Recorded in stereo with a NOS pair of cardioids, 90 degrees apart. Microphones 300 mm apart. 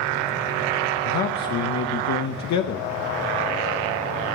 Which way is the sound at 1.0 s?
65° left.